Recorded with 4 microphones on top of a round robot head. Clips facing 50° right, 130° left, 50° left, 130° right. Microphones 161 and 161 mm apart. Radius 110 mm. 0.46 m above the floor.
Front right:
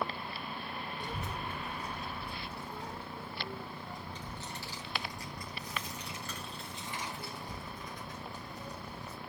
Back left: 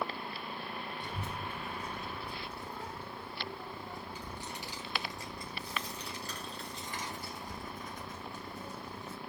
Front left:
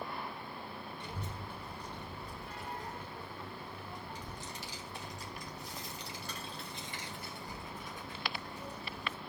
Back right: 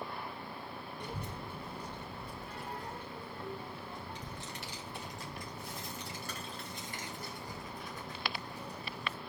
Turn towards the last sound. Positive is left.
turn(degrees=170)